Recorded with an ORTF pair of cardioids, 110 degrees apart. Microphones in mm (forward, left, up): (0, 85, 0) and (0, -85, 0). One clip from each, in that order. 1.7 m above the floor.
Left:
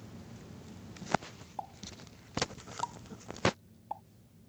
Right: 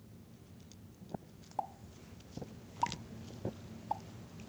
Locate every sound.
1.6 s a pop: 15° right